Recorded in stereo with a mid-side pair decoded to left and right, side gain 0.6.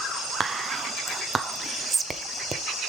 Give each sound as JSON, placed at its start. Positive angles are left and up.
{"t": 0.4, "sound": "whispering", "azimuth_deg": -25, "distance_m": 0.8}